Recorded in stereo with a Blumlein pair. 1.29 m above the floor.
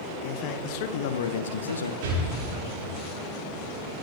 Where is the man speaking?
40° left, 1.4 m; by 1.9 s 80° left, 0.9 m.